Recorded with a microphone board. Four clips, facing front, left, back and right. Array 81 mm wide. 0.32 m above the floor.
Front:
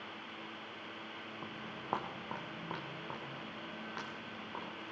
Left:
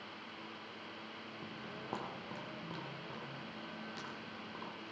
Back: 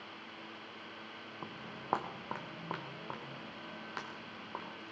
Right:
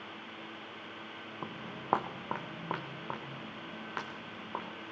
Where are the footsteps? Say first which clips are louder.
Right 5 dB, back 1 dB; 105° right, 0.8 m.